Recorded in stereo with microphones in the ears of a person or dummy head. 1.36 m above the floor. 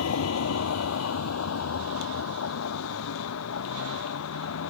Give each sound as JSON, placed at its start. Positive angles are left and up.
{"t": 0.0, "sound": "a vehicle", "side_deg": 80}